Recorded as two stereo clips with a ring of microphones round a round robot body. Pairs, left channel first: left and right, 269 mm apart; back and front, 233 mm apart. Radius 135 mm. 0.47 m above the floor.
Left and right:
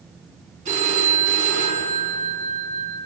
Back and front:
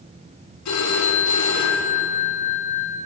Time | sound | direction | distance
0.7 | a phone ringing | 155° right | 4 m